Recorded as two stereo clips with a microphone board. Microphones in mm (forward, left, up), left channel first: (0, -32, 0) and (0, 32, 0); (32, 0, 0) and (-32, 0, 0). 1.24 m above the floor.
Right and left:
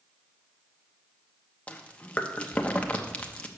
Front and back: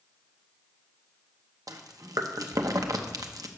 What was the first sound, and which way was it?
Chewing, 160° right.